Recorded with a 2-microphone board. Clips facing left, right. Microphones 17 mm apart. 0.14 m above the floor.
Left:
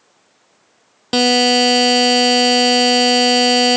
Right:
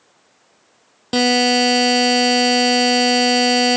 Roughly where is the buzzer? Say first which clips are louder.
Left 2 dB; centre.